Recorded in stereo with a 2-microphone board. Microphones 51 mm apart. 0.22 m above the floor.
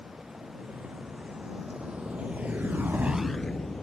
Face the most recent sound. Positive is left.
turn(degrees=15)  # may be behind; listen again after turning